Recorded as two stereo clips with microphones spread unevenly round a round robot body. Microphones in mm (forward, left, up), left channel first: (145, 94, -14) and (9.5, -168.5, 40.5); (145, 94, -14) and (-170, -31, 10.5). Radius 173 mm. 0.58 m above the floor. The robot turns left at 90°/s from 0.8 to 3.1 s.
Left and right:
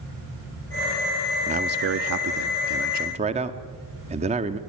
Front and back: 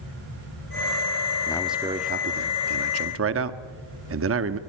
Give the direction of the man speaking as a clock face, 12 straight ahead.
1 o'clock.